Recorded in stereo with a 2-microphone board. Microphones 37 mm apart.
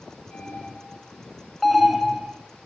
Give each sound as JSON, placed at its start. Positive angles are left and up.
{"t": 0.3, "sound": "an alarm", "side_deg": -20, "distance_m": 9.5}
{"t": 1.6, "sound": "an alarm", "side_deg": 0, "distance_m": 2.5}